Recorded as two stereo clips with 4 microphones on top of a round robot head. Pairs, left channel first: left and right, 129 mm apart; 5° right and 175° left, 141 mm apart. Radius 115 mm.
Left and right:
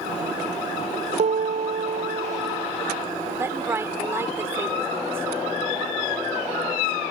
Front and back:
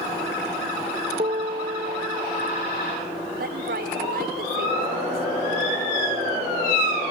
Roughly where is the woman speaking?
Behind.